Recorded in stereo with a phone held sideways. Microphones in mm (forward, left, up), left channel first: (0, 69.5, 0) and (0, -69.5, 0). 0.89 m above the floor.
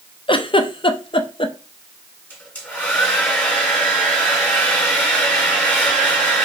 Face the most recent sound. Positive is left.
turn(degrees=10)  # may be behind; listen again after turning